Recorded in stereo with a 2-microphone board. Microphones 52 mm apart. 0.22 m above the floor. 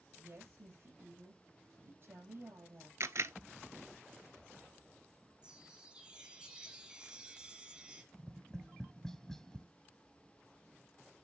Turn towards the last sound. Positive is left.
turn(degrees=10)  # may be behind; listen again after turning